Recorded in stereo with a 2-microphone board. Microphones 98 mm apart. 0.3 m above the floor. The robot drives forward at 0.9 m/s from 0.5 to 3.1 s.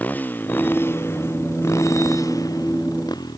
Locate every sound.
0.0 s a motorcycle: 20° left (ahead or behind); by 3.4 s 45° left (ahead or behind)